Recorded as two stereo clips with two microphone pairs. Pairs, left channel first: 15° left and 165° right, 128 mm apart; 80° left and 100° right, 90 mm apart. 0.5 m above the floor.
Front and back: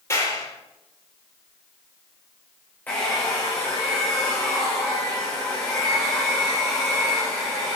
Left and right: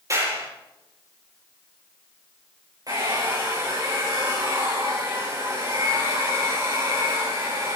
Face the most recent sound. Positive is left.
turn(degrees=-60)